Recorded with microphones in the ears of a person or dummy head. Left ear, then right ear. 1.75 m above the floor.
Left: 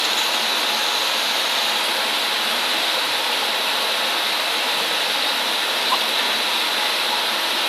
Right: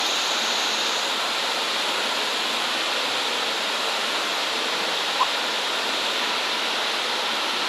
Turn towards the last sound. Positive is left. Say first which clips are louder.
# left 3 dB
turn(degrees=65)  # may be behind; listen again after turning